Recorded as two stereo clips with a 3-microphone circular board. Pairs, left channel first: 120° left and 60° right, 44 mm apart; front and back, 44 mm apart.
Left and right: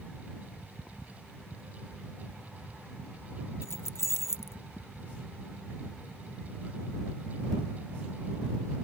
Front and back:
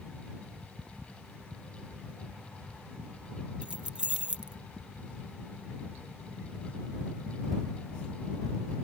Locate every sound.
3.6 s keys jangling: 115° left